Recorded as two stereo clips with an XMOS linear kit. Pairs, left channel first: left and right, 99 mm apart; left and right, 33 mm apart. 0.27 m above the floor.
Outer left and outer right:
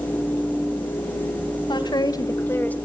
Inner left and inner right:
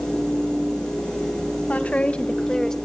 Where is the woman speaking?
50° left (ahead or behind), 2.5 m; by 2.8 s 15° left (ahead or behind), 1.5 m.